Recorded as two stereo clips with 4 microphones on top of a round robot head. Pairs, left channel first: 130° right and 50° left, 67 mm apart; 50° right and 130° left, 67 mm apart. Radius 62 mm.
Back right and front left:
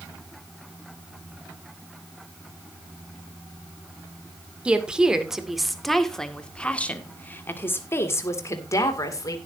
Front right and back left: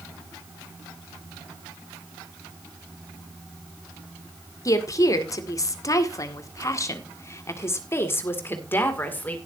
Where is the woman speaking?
25° right, 2 m; by 9.4 s 110° right, 2.5 m.